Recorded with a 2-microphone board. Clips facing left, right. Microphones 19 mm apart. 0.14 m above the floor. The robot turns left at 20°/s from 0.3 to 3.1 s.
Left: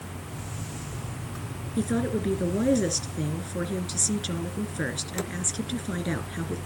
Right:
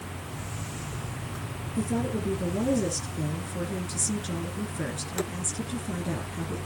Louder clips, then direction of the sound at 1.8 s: Left 2 dB; 45° left (ahead or behind).